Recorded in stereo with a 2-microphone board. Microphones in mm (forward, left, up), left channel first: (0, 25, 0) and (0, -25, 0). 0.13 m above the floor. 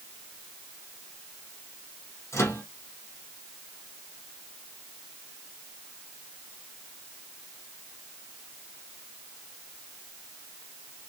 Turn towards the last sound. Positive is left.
turn(degrees=70)  # may be behind; listen again after turning